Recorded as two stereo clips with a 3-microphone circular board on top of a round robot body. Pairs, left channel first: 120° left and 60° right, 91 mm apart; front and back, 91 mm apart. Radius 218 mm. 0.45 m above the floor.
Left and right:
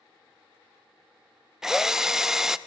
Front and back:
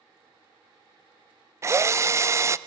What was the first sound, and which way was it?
A drill, 140° right.